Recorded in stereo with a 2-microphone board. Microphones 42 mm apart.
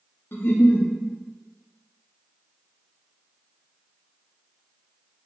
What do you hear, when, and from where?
0.3 s a giggle: 65° left (ahead or behind), 0.6 m